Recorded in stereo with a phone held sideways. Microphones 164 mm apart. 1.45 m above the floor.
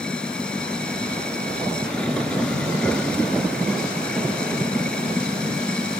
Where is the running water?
5° left (ahead or behind).